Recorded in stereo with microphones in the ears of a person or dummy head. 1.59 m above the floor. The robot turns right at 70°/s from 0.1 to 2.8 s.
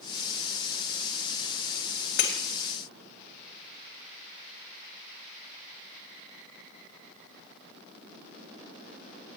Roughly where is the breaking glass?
Left.